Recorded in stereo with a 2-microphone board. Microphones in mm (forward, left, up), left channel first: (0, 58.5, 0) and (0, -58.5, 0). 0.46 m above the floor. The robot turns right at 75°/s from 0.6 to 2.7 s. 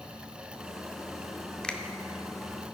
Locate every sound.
1.6 s a finger snap: 5° left (ahead or behind), 0.6 m; by 1.8 s 10° left (ahead or behind), 0.6 m